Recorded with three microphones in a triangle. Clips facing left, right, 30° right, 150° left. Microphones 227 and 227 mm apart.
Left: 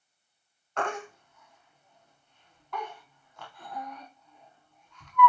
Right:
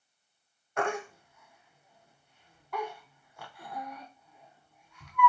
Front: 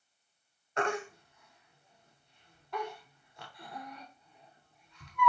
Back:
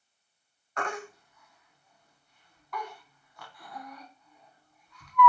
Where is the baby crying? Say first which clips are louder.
Right 2 dB, front 3 dB; 20° right, 0.6 m.